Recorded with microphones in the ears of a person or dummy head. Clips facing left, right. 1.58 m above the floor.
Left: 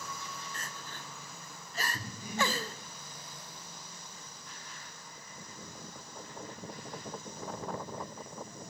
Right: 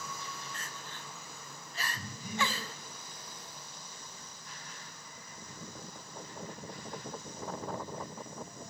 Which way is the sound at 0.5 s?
35° left (ahead or behind).